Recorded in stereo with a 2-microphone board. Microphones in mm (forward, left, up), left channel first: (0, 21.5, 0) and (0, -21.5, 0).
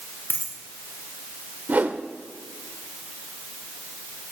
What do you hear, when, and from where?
0.3 s a dropped coin: 55° left (ahead or behind), 1.9 m
1.7 s a whoosh: 40° right (ahead or behind), 0.6 m